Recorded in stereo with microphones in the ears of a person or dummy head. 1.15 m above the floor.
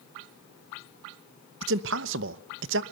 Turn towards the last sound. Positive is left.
turn(degrees=-70)  # may be behind; listen again after turning